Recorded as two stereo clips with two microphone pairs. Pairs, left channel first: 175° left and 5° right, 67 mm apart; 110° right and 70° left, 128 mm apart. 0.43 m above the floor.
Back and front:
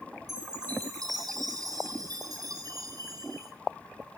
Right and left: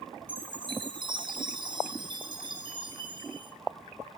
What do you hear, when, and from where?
0.3 s a chime: 15° left, 3 m